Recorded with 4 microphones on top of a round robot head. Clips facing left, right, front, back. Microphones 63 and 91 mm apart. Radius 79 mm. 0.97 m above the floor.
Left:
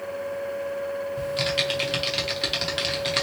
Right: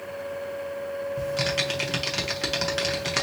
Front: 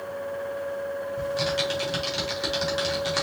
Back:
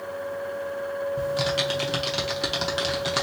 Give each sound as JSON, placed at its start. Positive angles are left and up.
{"t": 1.2, "sound": "typing on a keyboard", "azimuth_deg": -155, "distance_m": 0.5}